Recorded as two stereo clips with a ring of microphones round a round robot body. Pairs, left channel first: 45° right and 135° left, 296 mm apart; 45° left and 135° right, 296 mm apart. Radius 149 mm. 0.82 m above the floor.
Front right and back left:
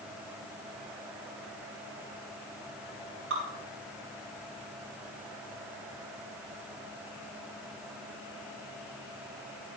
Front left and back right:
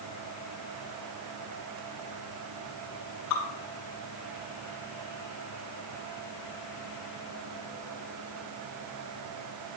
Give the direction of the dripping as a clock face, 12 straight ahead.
9 o'clock.